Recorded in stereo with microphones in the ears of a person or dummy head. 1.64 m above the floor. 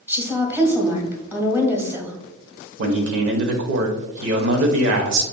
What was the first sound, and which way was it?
A woman speaking, 15° right (ahead or behind).